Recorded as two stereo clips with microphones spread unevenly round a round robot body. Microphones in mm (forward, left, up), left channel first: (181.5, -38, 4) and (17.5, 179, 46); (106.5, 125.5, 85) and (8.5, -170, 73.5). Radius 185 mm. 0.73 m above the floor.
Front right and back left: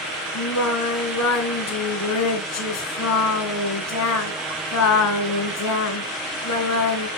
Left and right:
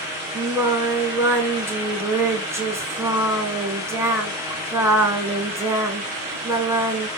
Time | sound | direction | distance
0.3 | singing | 25° right | 3 m